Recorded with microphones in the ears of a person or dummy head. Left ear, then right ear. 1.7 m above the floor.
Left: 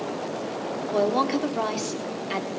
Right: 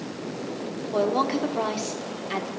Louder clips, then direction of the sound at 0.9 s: Even; centre (ahead or behind).